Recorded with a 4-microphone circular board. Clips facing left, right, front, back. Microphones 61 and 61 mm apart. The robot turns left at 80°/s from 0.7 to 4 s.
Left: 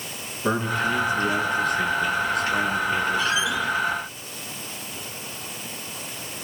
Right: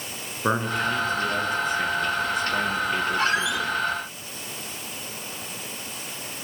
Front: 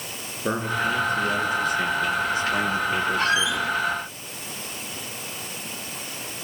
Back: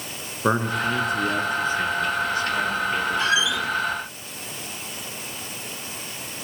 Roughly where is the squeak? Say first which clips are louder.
Even, even; ahead right.